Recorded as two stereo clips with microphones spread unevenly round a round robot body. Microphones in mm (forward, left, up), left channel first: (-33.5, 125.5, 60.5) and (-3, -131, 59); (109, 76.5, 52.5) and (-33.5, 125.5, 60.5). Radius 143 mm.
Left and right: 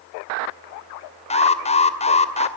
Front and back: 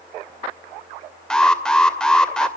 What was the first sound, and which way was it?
An alarm, 55° left.